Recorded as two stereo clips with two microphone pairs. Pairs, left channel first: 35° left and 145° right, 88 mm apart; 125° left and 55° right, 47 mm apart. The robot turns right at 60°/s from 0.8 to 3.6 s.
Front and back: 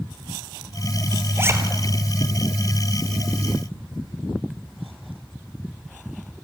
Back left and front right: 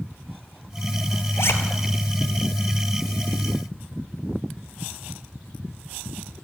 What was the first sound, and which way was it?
A zipper, 150° left.